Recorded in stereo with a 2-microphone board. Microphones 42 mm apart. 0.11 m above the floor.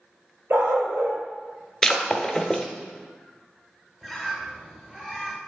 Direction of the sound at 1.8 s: 15° left (ahead or behind).